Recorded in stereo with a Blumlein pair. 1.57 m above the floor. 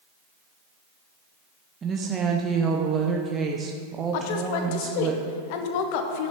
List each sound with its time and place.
1.8 s a woman speaking: 20° right, 0.8 m
4.1 s a woman speaking: 45° left, 1.2 m